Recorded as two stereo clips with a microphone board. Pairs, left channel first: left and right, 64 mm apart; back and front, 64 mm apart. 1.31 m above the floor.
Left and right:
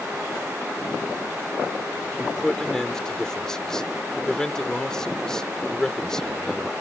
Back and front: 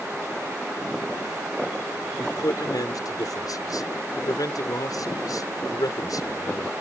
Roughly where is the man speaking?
Behind.